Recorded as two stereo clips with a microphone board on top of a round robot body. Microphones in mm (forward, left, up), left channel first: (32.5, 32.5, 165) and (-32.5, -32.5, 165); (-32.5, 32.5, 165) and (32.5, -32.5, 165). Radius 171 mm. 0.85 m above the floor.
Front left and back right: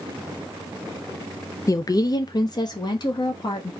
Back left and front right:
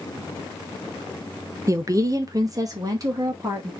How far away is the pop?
I don't hear a pop.